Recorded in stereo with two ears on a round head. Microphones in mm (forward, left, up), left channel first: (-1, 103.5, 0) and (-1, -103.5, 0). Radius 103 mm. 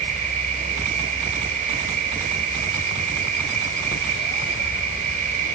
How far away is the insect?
About 0.8 m.